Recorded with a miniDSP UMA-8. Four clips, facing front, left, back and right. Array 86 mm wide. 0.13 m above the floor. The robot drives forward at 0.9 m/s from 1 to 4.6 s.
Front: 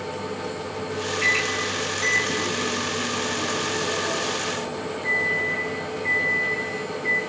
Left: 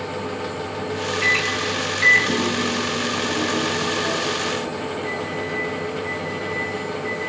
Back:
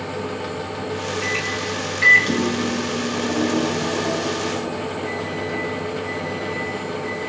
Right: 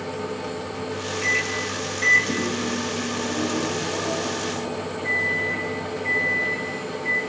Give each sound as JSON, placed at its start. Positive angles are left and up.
{"t": 1.2, "sound": "a microwave", "azimuth_deg": 55, "distance_m": 0.9}